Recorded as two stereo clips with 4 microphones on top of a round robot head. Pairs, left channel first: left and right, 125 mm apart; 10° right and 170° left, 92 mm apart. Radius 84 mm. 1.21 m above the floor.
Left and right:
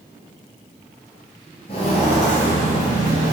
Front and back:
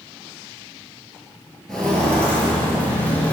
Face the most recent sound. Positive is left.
turn(degrees=60)